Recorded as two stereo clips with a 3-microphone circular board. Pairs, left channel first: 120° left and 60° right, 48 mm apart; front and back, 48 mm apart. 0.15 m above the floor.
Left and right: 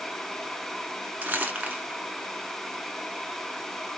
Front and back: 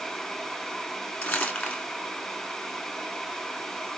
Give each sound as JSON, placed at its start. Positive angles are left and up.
{"t": 1.2, "sound": "crumpling", "azimuth_deg": -30, "distance_m": 1.3}